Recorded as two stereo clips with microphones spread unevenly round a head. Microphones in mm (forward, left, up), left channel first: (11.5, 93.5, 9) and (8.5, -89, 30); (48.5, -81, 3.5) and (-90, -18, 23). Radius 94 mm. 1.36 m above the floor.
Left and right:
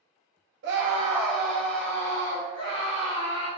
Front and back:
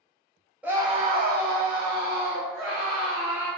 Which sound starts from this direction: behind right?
A scream, at 0.6 s.